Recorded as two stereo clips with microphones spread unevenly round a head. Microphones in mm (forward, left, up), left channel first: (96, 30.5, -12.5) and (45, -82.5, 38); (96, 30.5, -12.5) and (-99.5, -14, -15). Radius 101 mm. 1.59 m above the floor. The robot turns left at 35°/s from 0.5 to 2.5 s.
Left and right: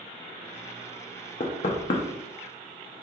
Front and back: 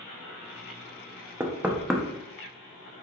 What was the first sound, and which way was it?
Knocking, 120° left.